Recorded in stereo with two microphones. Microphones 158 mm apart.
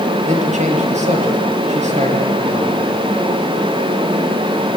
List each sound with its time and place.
0.3 s a man speaking: 45° right (ahead or behind), 5 m